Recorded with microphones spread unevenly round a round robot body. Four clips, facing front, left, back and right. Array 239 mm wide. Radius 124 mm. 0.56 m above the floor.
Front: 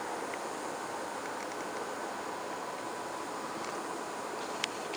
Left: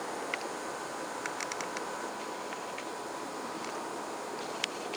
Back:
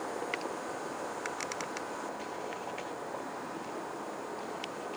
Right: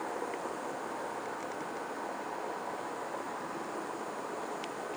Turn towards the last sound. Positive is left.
No sound to turn to.